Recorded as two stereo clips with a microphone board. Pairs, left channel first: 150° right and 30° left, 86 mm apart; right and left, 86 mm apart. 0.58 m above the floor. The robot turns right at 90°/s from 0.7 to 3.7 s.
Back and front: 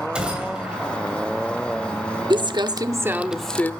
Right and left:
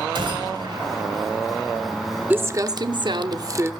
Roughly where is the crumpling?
Ahead.